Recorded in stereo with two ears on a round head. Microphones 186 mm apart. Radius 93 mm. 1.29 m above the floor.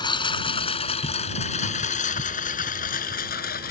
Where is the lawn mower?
25° left (ahead or behind); by 3.7 s 50° left (ahead or behind).